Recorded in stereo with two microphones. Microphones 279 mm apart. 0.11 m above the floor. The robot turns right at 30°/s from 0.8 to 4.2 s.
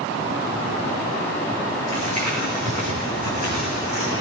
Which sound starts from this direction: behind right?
Crumpling, at 1.9 s.